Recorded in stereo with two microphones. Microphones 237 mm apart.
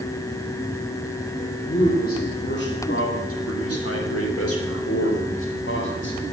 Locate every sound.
1.6 s a man speaking: 30° left (ahead or behind), 3 m; by 6.2 s 55° left (ahead or behind), 4.5 m